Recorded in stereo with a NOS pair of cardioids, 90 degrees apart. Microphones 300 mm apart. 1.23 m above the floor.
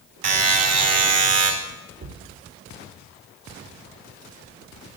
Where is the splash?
No splash in this recording.